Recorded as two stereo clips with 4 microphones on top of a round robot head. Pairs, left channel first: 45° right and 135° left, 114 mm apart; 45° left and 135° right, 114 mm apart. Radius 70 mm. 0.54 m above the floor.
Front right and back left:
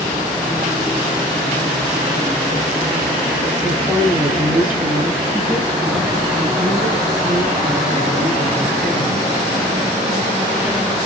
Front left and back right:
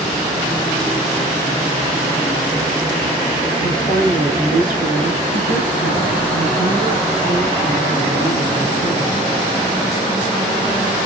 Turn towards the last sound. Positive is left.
turn(degrees=-175)